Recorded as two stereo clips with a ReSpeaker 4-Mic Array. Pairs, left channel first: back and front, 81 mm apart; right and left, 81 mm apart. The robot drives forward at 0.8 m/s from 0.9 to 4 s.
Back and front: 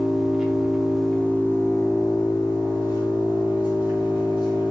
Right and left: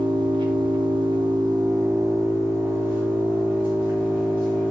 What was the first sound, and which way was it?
An engine running, 85° left.